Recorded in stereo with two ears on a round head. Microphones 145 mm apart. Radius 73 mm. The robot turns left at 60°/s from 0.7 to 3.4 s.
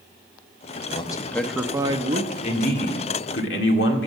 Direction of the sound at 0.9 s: 35° left.